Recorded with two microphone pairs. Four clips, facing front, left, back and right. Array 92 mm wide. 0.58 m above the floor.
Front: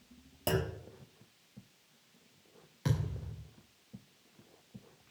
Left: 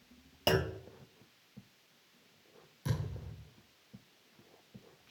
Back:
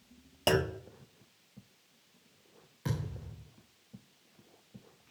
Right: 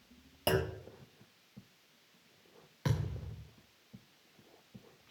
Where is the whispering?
I don't hear whispering.